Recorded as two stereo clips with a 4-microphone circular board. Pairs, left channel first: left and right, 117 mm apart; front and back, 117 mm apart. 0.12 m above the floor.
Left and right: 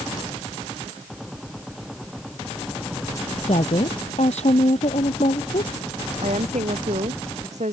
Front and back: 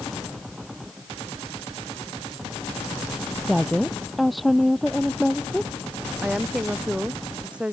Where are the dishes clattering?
No dishes clattering in this recording.